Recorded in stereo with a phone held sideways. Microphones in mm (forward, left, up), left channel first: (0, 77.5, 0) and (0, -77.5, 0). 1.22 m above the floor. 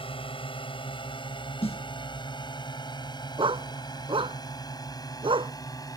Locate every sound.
0.0 s a drone: 35° left (ahead or behind); by 6.0 s 20° left (ahead or behind)
1.6 s a snare drum: 40° left (ahead or behind)
3.4 s a dog barking: 35° right (ahead or behind)